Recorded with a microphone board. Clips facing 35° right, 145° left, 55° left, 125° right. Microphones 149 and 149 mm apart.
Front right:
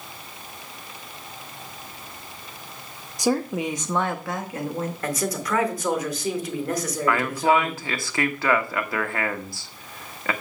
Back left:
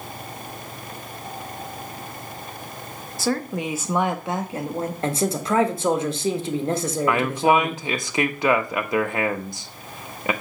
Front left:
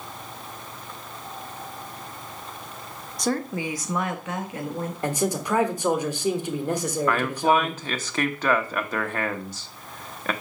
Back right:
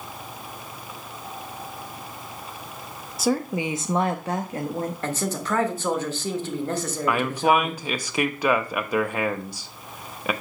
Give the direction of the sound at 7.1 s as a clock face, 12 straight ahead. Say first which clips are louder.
Back left 2 dB, back right 1 dB; 6 o'clock.